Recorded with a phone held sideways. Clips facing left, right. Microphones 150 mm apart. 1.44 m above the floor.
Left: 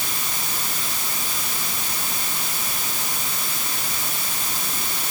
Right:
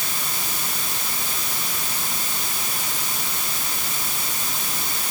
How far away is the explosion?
I don't hear an explosion.